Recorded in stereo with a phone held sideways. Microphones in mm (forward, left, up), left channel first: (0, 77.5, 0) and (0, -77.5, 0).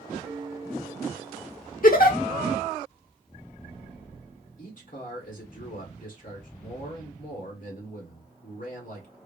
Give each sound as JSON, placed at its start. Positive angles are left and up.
{"t": 0.2, "sound": "a piano", "side_deg": -15, "distance_m": 1.4}
{"t": 1.8, "sound": "a giggle", "side_deg": 70, "distance_m": 0.6}
{"t": 4.6, "sound": "a man speaking", "side_deg": 60, "distance_m": 1.4}